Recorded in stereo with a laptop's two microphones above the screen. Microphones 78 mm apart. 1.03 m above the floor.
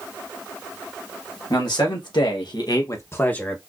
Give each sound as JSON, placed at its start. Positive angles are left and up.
{"t": 1.5, "sound": "a man speaking", "side_deg": 65, "distance_m": 1.6}